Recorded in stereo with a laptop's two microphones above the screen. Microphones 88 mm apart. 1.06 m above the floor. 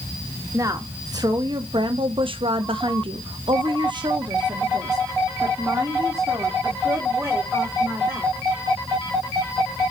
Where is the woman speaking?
35° right (ahead or behind), 1.4 m; by 8.3 s 25° right (ahead or behind), 3.5 m.